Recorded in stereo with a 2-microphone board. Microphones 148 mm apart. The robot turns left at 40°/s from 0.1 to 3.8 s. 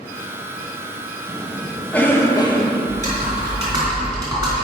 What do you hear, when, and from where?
1.3 s a cough: 160° right, 1.5 m; by 2.8 s 140° left, 1.5 m
2.9 s typing on a keyboard: 120° right, 3.5 m; by 4.6 s 155° right, 3.5 m